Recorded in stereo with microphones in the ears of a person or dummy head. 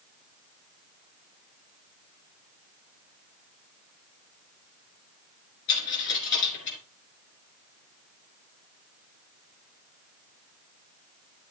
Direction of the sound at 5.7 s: 55° left (ahead or behind).